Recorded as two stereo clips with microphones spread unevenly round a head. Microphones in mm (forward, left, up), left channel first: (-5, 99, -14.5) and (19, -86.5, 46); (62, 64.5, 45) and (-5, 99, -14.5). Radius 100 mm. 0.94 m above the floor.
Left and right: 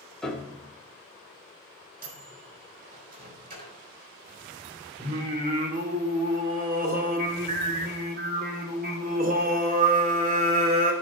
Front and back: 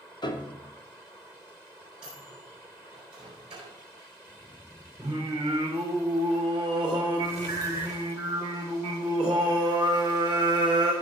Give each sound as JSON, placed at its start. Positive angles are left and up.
{"t": 0.2, "sound": "a piano", "azimuth_deg": 20, "distance_m": 1.4}
{"t": 2.0, "sound": "a microwave", "azimuth_deg": -130, "distance_m": 4.0}
{"t": 5.0, "sound": "singing", "azimuth_deg": -130, "distance_m": 2.5}